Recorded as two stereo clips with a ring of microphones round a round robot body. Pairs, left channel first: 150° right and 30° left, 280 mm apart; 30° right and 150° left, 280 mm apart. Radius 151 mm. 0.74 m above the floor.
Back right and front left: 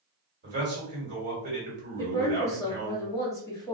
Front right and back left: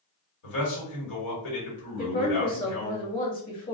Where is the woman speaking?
75° right, 1.4 m.